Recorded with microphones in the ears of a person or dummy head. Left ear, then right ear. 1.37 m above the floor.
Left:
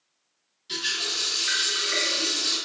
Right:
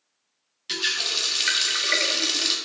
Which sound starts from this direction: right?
A running tap, at 0.7 s.